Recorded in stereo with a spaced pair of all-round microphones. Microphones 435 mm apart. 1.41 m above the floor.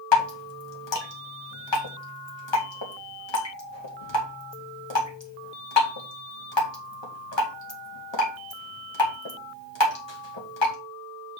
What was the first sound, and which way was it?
Dripping, 80° left.